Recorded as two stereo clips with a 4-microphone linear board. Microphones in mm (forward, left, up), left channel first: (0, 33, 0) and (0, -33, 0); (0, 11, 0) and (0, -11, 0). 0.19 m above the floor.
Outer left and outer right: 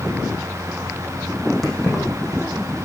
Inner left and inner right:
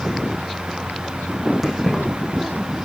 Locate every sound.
1.6 s keys jangling: centre (ahead or behind), 5 m